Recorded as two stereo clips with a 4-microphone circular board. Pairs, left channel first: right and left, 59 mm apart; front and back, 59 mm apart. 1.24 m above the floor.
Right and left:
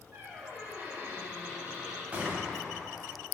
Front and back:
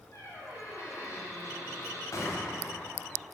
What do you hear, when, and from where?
0.1 s a squeak: 30° left, 2 m
2.1 s a gunshot: 25° left, 1.2 m